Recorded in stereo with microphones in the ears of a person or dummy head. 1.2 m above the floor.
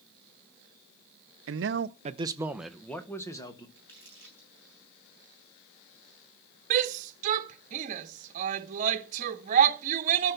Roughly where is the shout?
Right.